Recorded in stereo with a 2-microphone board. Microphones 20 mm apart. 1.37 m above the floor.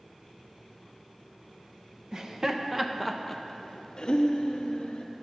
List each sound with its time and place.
2.1 s laughter: 40° right (ahead or behind), 1.1 m; by 5.0 s 65° left (ahead or behind), 1.5 m